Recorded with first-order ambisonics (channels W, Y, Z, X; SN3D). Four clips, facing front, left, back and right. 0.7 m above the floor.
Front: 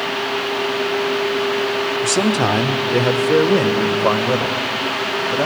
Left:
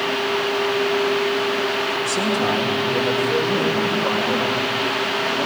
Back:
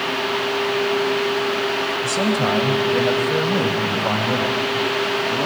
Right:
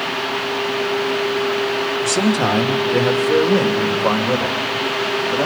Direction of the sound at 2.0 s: 30° right.